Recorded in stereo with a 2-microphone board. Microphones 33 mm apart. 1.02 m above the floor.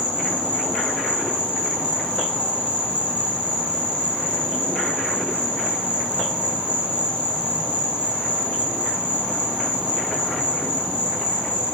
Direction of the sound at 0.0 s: 45° right (ahead or behind).